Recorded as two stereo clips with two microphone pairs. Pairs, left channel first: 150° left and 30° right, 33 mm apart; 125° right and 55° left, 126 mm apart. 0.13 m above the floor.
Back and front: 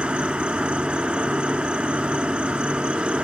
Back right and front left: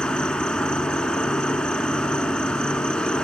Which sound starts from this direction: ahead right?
An insect, at 0.0 s.